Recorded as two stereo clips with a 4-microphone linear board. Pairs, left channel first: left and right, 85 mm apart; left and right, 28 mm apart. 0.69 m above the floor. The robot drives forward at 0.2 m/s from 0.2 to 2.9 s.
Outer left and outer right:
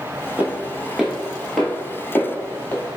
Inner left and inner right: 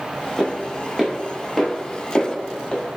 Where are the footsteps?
15° right (ahead or behind), 0.8 m; by 2.8 s 25° left (ahead or behind), 0.8 m.